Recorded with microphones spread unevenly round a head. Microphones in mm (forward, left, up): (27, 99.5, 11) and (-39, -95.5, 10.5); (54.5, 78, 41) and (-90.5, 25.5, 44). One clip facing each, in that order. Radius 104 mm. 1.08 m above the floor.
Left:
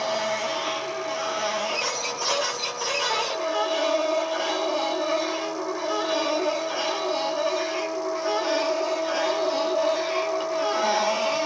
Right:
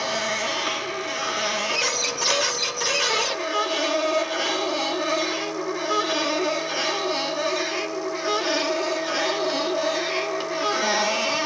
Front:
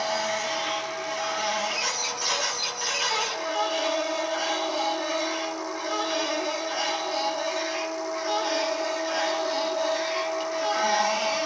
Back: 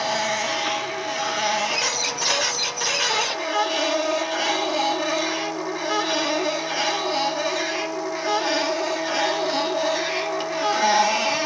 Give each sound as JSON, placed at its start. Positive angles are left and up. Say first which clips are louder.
{"t": 0.0, "sound": "a machine running", "louder": "left 1 dB, back 3 dB", "azimuth_deg": -165, "distance_m": 0.8}